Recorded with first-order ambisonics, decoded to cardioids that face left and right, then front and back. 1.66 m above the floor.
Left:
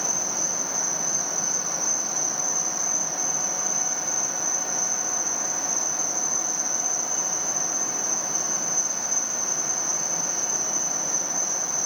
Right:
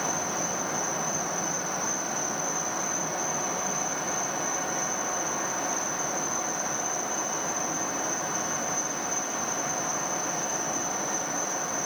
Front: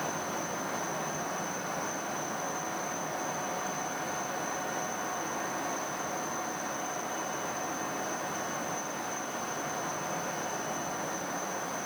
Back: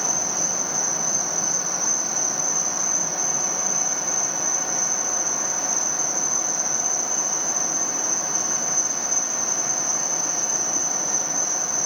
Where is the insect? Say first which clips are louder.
Left 3 dB, back 10 dB; 155° left.